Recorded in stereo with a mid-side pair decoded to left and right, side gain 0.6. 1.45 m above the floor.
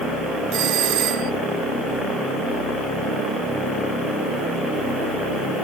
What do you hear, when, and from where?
0.5 s a doorbell: 55° right